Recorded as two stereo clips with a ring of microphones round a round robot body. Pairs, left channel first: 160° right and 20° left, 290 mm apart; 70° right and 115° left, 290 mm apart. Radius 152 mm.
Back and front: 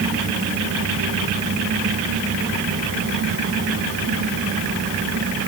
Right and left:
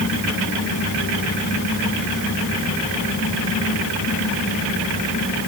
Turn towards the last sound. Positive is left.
No sound to turn to.